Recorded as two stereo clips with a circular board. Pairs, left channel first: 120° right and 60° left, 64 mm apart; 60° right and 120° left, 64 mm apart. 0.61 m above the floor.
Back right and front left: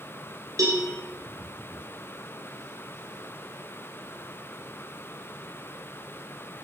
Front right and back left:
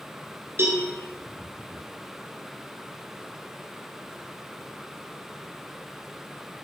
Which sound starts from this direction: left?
A cowbell, at 0.6 s.